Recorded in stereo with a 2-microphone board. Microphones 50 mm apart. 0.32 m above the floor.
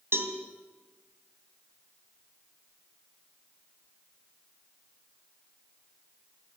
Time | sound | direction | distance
0.1 | a cowbell | 55° right (ahead or behind) | 2.5 m